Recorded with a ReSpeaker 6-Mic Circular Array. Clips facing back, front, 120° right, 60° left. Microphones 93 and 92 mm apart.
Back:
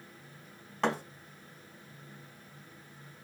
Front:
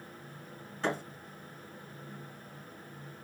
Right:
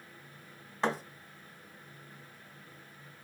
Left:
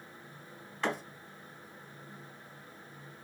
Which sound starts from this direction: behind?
A thud, at 0.8 s.